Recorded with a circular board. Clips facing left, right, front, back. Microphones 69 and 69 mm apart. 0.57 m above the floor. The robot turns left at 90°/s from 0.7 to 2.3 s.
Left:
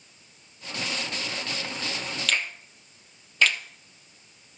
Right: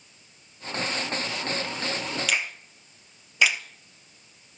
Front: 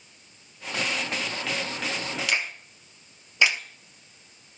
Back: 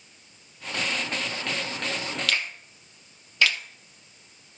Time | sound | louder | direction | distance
2.3 | a finger snap | even, front 1 dB | 25° right | 0.7 m